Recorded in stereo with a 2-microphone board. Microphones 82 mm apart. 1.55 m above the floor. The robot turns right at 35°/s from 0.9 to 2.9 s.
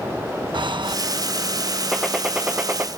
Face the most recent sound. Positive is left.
turn(degrees=-150)